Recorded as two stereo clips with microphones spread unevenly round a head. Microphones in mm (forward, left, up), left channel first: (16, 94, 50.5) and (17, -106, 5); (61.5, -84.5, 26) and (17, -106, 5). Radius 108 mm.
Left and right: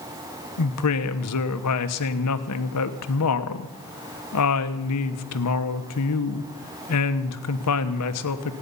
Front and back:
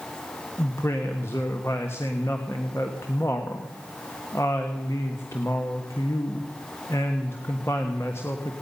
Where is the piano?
I don't hear a piano.